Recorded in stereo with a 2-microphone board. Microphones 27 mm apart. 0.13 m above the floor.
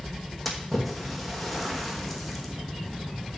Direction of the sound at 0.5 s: Centre (ahead or behind).